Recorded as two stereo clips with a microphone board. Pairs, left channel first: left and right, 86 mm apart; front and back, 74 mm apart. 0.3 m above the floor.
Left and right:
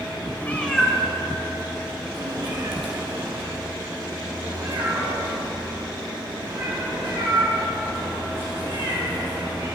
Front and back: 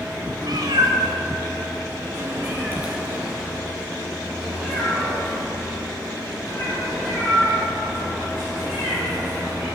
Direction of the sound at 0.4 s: 160° left.